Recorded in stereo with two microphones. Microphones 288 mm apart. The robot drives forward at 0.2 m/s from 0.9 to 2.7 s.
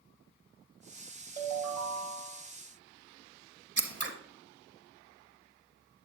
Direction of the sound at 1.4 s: 35° left (ahead or behind).